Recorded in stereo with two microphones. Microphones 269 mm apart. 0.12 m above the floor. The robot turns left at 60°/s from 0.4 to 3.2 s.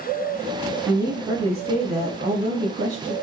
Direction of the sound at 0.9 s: 5° right.